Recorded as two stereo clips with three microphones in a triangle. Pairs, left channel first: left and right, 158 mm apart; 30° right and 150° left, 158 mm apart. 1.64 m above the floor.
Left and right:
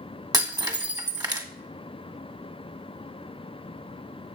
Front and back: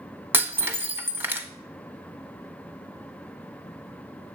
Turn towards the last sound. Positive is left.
turn(degrees=-140)